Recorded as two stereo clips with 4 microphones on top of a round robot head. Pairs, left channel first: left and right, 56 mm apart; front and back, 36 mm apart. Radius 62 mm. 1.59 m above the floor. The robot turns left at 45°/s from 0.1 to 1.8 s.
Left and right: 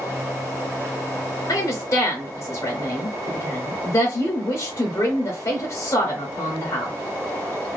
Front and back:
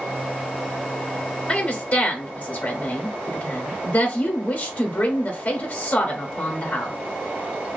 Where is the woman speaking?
70° left, 0.8 m; by 6.9 s 55° left, 0.8 m.